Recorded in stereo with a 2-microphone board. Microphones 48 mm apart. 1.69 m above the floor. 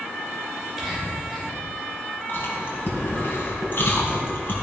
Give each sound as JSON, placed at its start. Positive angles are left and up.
{"t": 0.6, "sound": "whispering", "side_deg": -5, "distance_m": 6.0}
{"t": 2.3, "sound": "chewing", "side_deg": 45, "distance_m": 4.0}